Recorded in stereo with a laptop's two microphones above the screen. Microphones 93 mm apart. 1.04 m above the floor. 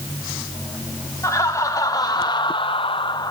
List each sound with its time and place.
1.2 s laughter: 30° left (ahead or behind), 2.5 m; by 3.3 s 45° left (ahead or behind), 0.9 m